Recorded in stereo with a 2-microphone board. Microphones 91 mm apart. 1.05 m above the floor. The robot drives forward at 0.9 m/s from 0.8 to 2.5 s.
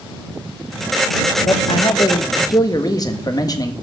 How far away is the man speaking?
About 1.0 m.